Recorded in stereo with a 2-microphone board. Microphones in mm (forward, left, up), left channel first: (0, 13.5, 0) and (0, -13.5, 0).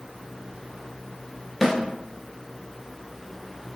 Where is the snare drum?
Centre (ahead or behind), 1.5 m.